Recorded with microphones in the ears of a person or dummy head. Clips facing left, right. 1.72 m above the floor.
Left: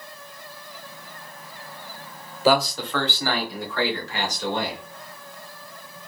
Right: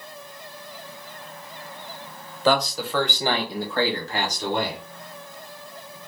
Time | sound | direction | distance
2.5 | a man speaking | 10° left (ahead or behind) | 0.7 m